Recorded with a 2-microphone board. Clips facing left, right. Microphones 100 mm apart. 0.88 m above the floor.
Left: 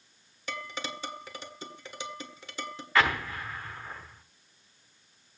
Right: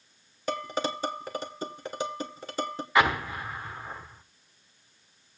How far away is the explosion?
About 1.1 m.